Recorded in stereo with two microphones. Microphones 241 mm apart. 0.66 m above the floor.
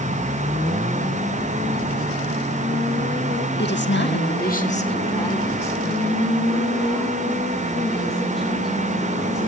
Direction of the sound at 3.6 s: 50° left (ahead or behind).